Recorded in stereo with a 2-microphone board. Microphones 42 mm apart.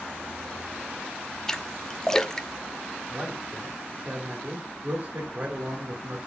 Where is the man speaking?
45° right (ahead or behind), 2.5 m.